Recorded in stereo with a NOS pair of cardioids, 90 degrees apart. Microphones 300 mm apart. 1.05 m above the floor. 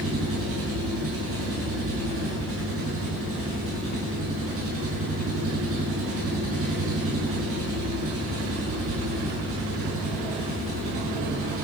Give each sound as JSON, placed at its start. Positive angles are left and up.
{"t": 0.0, "sound": "an engine running", "azimuth_deg": -50, "distance_m": 9.5}